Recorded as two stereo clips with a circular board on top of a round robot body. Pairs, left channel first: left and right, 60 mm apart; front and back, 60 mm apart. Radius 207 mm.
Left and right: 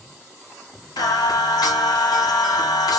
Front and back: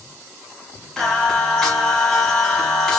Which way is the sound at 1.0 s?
85° left.